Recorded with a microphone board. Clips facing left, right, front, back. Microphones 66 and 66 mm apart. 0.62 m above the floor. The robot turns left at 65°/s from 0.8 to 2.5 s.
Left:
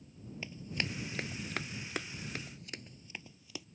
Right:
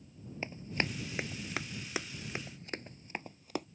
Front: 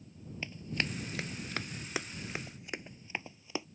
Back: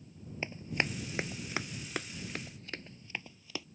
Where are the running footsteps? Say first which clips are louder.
Right 4 dB, back 2 dB; 130° right; by 3.7 s 65° right.